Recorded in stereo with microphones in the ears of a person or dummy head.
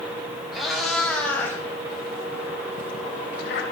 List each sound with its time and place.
0.5 s a cat meowing: 5° right (ahead or behind), 3.5 m; by 3.6 s 60° left (ahead or behind), 2.5 m